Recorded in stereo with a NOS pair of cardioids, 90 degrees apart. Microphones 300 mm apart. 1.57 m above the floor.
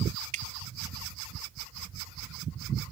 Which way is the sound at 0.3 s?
65° right.